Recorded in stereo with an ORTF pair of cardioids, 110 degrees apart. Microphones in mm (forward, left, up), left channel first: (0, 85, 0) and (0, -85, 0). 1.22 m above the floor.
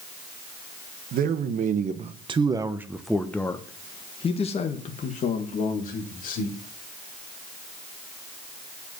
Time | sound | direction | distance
1.1 | a man speaking | 65° right | 1.4 m